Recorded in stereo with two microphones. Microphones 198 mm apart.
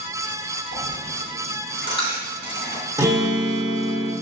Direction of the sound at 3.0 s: 15° right (ahead or behind).